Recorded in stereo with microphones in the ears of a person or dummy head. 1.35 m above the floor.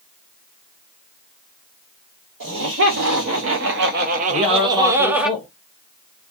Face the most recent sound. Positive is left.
turn(degrees=10)  # may be behind; listen again after turning